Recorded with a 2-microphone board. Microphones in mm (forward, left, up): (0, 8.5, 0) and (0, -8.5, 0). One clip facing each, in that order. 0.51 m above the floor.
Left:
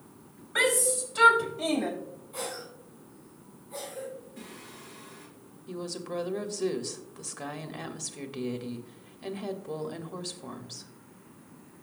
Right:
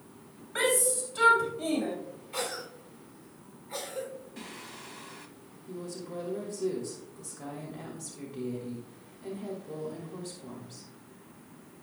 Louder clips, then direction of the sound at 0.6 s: Left 2 dB; 10° left (ahead or behind).